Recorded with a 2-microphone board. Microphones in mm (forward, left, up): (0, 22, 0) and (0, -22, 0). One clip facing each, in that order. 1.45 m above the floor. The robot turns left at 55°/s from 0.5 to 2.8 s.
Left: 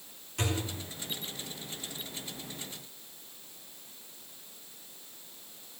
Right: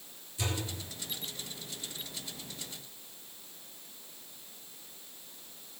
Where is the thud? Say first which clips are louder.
Left 3 dB; 65° left (ahead or behind), 7 m; by 0.8 s 80° left, 7 m.